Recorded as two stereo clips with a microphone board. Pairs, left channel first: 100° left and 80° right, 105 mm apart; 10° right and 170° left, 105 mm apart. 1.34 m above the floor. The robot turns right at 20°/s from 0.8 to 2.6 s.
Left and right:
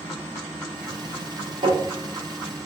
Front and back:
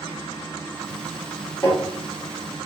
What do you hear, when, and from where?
1.6 s tapping: 75° right, 2 m; by 1.8 s 70° right, 2 m